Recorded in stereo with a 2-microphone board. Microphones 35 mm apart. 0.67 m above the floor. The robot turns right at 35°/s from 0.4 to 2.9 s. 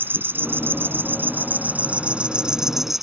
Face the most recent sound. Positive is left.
turn(degrees=-10)